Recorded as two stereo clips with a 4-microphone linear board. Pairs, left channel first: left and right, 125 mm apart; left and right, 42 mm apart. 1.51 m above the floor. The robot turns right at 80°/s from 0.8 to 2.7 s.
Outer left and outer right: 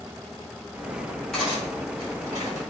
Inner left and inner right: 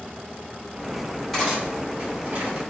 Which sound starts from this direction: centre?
Cutlery clinking, at 1.3 s.